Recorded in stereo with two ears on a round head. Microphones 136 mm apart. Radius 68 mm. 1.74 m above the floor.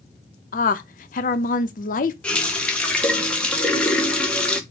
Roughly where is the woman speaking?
Left.